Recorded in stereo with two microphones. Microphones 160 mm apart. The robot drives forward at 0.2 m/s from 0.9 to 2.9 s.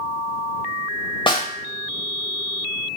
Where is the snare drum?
35° left (ahead or behind), 0.6 m; by 1.5 s 30° left (ahead or behind), 0.7 m.